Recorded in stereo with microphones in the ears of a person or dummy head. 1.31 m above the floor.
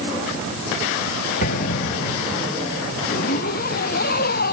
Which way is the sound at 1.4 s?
55° left (ahead or behind).